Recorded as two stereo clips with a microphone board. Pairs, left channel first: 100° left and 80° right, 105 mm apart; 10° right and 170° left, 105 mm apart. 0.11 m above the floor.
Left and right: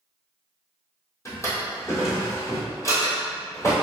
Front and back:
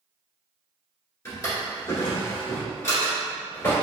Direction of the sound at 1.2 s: 45° left.